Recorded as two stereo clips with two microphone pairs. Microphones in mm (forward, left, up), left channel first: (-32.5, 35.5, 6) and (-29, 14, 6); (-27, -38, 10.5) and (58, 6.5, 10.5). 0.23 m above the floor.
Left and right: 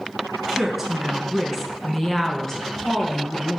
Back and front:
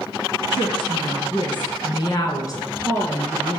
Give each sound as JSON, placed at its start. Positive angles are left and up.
{"t": 0.5, "sound": "a woman speaking", "azimuth_deg": -155, "distance_m": 3.0}